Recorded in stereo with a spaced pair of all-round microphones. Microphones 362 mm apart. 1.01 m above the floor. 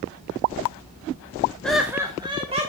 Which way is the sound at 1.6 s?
5° left (ahead or behind).